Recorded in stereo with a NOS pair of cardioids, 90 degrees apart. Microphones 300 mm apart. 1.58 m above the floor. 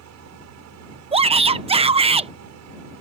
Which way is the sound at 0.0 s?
65° right.